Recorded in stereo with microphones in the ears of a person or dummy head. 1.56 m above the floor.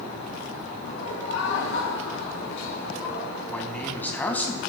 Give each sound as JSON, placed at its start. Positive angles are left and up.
{"t": 0.8, "sound": "laughter", "side_deg": 80, "distance_m": 2.5}
{"t": 3.5, "sound": "a man speaking", "side_deg": 10, "distance_m": 1.9}